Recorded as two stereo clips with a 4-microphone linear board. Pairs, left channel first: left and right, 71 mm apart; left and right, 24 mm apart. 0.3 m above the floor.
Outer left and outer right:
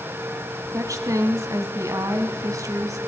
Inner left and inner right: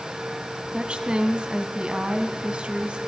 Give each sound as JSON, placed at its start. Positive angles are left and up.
{"t": 0.7, "sound": "a woman speaking", "side_deg": -50, "distance_m": 2.0}